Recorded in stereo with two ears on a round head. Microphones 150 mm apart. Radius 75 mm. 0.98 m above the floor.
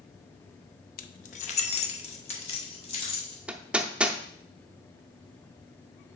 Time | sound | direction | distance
1.0 | keys jangling | 55° left (ahead or behind) | 0.5 m
3.5 | hammering | 5° right (ahead or behind) | 0.5 m